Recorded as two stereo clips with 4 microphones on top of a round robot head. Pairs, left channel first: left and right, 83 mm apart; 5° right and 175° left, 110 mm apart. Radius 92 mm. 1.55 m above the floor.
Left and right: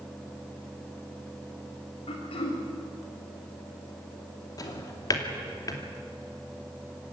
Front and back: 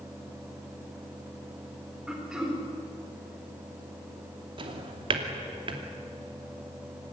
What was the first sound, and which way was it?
Throat clearing, 95° left.